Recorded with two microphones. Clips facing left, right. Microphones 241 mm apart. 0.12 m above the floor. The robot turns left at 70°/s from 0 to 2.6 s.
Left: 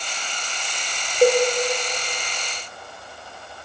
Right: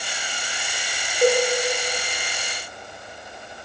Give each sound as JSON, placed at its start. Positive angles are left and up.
{"t": 1.2, "sound": "a cowbell", "side_deg": 35, "distance_m": 7.0}